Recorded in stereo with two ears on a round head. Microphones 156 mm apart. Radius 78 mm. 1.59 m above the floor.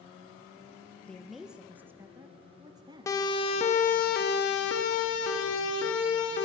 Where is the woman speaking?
5° left (ahead or behind), 1.8 m; by 3.2 s 25° right (ahead or behind), 3.5 m.